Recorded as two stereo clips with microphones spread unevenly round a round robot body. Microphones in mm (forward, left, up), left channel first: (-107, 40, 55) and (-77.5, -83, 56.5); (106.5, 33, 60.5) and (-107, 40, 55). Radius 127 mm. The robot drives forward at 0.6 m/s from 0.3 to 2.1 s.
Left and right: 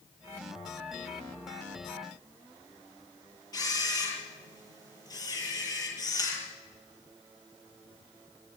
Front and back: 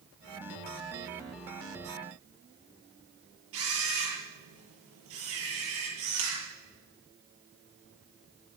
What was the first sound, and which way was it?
A camera shutter, 165° left.